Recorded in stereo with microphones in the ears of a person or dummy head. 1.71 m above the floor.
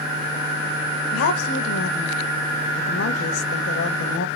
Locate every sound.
1.1 s a woman speaking: 70° left (ahead or behind), 1.7 m